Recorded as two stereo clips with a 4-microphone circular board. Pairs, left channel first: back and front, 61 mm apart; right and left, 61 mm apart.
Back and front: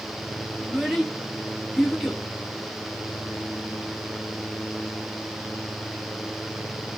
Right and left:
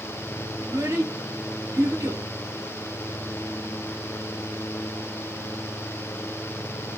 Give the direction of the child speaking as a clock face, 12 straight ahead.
9 o'clock.